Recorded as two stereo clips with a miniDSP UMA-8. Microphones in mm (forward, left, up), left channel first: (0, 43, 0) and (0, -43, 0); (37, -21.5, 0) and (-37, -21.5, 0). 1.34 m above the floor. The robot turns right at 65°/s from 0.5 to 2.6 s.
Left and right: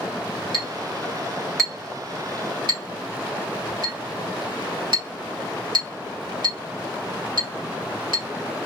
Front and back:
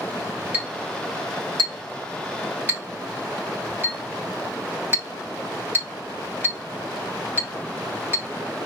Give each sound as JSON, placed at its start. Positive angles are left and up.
{"t": 0.5, "sound": "a clink", "azimuth_deg": 110, "distance_m": 2.5}